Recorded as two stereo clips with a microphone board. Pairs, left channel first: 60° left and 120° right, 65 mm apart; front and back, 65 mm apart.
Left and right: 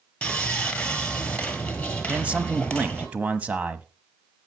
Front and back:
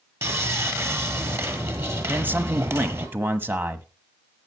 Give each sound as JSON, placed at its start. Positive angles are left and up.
{"t": 0.2, "sound": "sawing", "azimuth_deg": 135, "distance_m": 1.8}
{"t": 2.1, "sound": "a man speaking", "azimuth_deg": -165, "distance_m": 1.2}